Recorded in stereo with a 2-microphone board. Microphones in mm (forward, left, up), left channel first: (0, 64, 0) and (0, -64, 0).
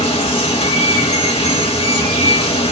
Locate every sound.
0.0 s running water: 45° left (ahead or behind), 1.3 m